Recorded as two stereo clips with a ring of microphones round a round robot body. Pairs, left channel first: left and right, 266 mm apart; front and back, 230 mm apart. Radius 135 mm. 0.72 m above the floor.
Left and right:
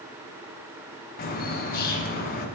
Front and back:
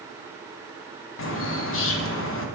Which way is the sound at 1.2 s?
30° left.